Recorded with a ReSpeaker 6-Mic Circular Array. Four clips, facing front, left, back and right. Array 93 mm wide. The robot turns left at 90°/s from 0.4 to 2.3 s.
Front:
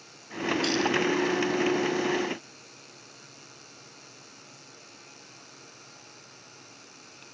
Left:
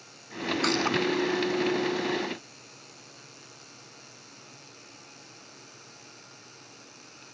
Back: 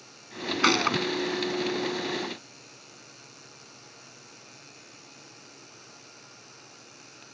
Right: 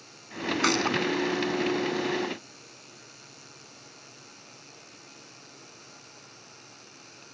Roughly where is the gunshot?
Behind.